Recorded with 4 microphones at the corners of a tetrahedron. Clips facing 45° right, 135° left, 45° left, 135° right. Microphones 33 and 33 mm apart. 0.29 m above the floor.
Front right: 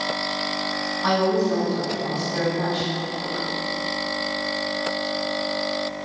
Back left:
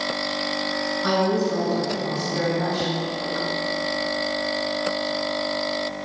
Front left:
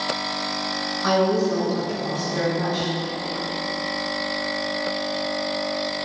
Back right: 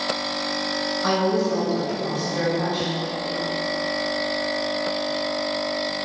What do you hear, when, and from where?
1.0 s a woman speaking: 85° right, 1.8 m